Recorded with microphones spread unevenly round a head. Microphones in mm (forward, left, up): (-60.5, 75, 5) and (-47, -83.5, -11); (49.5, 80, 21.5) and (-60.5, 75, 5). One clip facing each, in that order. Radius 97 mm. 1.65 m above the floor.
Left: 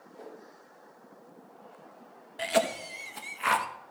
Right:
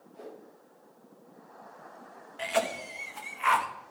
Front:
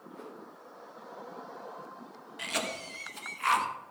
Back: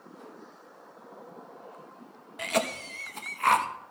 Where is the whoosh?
5° left, 4 m.